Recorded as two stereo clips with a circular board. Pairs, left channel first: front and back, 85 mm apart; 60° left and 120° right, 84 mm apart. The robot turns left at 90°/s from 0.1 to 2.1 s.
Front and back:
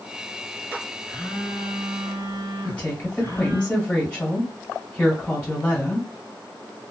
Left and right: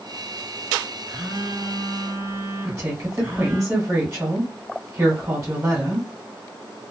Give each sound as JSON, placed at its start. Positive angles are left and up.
{"t": 1.1, "sound": "a phone buzzing", "azimuth_deg": -80, "distance_m": 1.3}
{"t": 2.6, "sound": "a woman speaking", "azimuth_deg": -75, "distance_m": 1.9}